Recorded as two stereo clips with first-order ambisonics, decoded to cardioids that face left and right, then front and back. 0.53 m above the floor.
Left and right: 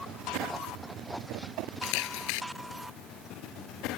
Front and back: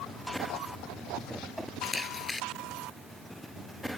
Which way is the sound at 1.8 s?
80° left.